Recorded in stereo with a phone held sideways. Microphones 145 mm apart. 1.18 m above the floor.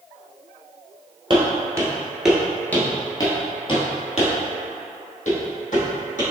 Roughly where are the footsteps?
Right.